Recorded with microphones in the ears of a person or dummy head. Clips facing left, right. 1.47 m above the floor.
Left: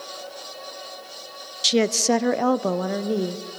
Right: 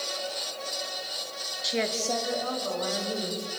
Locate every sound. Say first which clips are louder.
1.6 s a woman speaking: left 9 dB; 35° left (ahead or behind), 0.6 m; by 3.4 s 50° left (ahead or behind), 1.4 m